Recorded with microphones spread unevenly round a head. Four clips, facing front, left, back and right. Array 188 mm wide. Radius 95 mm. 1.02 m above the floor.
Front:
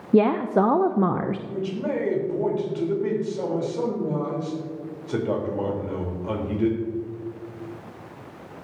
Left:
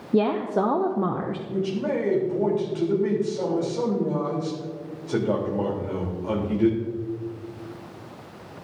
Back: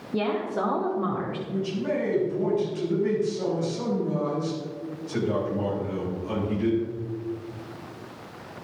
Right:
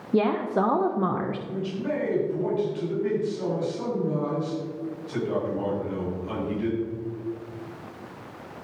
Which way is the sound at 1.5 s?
50° left.